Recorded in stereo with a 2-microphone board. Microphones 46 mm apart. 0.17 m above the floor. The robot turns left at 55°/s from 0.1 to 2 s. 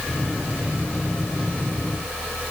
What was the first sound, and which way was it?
Only background noise.